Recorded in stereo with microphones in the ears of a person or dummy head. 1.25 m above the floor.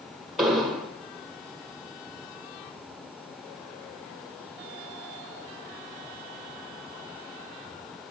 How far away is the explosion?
About 0.8 m.